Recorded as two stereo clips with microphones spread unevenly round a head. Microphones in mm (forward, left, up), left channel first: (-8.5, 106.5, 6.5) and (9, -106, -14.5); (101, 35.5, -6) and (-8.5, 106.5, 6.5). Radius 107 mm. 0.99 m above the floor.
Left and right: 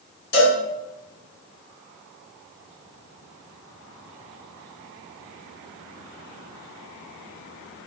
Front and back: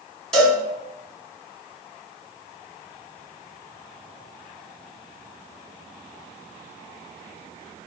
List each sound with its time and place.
0.3 s a cowbell: 55° left, 1.6 m